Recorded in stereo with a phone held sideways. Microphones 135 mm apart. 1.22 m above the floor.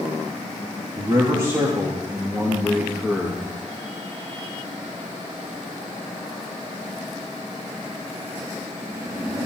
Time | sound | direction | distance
1.0 | a man speaking | 35° right (ahead or behind) | 2.5 m